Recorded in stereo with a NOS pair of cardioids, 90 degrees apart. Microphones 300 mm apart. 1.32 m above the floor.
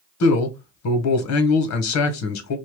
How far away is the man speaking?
About 1.1 m.